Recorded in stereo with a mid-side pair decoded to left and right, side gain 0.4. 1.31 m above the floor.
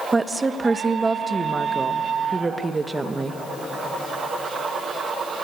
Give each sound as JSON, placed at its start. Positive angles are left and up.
{"t": 0.1, "sound": "a woman speaking", "azimuth_deg": -30, "distance_m": 1.3}